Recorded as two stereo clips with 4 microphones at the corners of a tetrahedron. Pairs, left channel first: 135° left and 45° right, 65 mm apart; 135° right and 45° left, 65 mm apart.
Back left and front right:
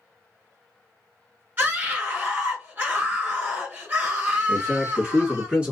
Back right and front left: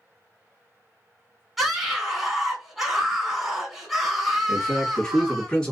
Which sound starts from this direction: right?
A man speaking, at 4.5 s.